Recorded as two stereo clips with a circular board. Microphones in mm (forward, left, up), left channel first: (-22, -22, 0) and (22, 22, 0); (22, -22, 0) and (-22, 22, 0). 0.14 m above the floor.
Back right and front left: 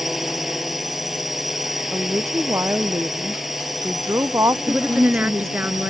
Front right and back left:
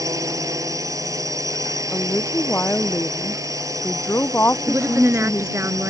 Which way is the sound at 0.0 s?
130° left.